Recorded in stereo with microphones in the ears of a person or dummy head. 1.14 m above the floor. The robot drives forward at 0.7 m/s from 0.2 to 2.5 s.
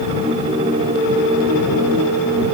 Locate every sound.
Only background noise.